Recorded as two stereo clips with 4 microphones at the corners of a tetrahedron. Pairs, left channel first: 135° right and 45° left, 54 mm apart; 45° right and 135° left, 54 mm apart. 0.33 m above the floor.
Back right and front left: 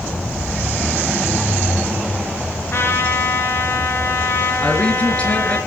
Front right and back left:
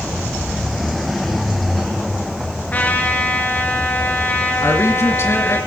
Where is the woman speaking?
75° right, 3 m.